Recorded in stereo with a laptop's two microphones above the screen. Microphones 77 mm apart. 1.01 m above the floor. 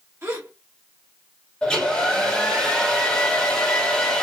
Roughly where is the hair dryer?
Centre.